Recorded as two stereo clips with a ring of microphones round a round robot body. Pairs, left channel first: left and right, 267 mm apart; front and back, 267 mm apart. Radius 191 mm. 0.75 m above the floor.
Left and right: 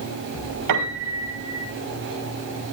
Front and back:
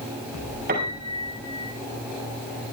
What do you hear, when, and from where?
0.7 s a piano: 110° right, 5.5 m